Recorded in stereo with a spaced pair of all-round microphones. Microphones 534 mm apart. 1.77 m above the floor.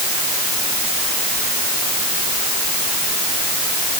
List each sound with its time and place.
Only background noise.